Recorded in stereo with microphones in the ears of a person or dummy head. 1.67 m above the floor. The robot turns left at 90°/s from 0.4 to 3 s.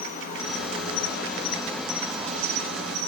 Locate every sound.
0.0 s an insect: 130° left, 3 m; by 3.1 s 105° right, 3 m